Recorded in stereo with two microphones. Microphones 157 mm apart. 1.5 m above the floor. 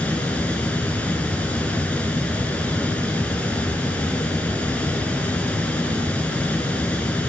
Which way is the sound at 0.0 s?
5° left (ahead or behind).